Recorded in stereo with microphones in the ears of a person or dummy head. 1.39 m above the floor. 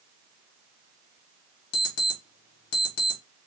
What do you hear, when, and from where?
1.7 s an alarm clock: 60° left (ahead or behind), 0.9 m